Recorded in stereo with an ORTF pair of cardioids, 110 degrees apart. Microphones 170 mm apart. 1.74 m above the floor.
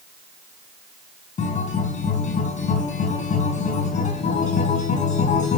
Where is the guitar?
50° left, 5 m.